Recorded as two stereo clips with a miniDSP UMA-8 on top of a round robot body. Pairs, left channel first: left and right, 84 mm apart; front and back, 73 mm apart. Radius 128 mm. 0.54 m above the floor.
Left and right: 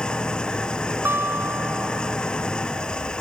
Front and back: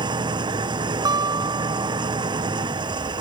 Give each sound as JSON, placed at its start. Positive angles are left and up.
{"t": 0.0, "sound": "an engine running", "azimuth_deg": 170}
{"t": 1.1, "sound": "a guitar", "azimuth_deg": -155}